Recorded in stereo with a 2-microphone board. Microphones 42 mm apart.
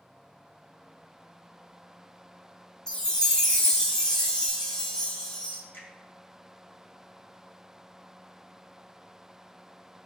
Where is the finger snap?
65° left (ahead or behind), 1.0 m.